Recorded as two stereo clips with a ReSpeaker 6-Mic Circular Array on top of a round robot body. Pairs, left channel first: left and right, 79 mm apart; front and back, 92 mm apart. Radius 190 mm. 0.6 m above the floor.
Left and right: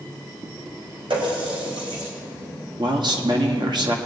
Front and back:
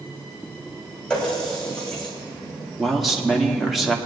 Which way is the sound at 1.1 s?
80° right.